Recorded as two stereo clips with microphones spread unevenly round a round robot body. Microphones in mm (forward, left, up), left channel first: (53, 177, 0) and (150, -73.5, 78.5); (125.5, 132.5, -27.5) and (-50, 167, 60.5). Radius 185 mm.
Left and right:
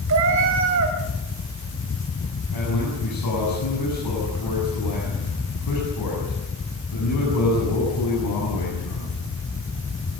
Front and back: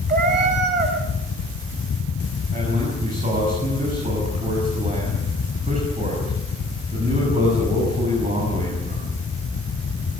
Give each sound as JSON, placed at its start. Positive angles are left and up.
{"t": 0.1, "sound": "a cat meowing", "azimuth_deg": -125, "distance_m": 2.0}
{"t": 2.5, "sound": "a man speaking", "azimuth_deg": 120, "distance_m": 7.5}